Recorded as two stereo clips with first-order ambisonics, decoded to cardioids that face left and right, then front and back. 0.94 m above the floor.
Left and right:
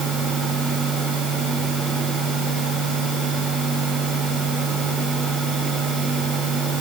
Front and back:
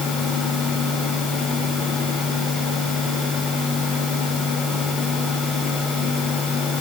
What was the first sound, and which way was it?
Only background noise.